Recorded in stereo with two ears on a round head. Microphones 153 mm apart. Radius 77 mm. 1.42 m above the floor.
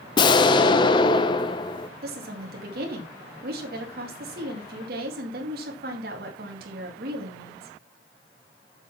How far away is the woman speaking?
About 2.5 m.